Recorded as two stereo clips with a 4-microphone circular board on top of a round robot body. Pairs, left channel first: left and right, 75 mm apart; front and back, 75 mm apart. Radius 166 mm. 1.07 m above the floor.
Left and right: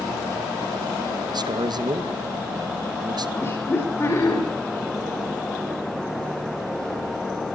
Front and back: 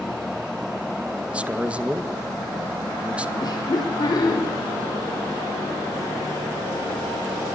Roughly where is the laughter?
Ahead left.